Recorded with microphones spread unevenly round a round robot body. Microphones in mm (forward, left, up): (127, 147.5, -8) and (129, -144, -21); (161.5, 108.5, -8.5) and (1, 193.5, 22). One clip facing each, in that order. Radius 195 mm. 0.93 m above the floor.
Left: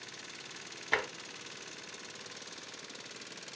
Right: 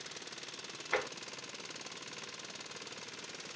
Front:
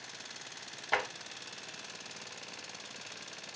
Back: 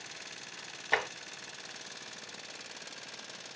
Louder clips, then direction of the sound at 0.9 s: Right 1 dB, back 1 dB; 75° left.